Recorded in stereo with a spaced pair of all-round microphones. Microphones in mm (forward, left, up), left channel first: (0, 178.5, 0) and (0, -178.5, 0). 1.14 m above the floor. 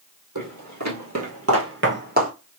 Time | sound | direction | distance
0.3 | footsteps | 55° right (ahead or behind) | 2 m